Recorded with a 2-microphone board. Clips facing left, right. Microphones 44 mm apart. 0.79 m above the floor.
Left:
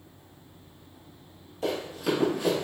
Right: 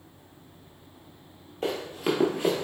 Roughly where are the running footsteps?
Right.